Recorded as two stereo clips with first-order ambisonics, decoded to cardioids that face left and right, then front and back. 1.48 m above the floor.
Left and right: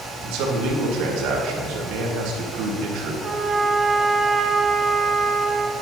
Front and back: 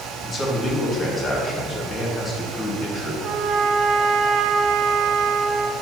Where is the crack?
I don't hear a crack.